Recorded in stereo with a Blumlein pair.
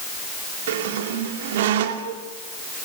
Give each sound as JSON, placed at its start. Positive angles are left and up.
{"t": 0.7, "sound": "a squeak", "azimuth_deg": -55, "distance_m": 2.0}